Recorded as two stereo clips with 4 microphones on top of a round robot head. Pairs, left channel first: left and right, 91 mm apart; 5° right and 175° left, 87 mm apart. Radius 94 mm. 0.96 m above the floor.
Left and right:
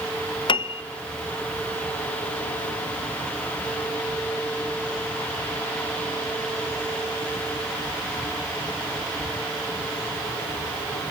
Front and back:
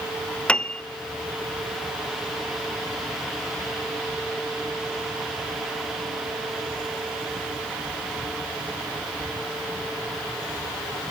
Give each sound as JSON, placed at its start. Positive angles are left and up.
{"t": 0.5, "sound": "a piano", "azimuth_deg": 70, "distance_m": 0.7}